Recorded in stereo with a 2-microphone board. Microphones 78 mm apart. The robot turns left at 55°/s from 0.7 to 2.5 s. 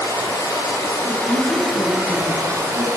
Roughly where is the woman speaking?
Behind right.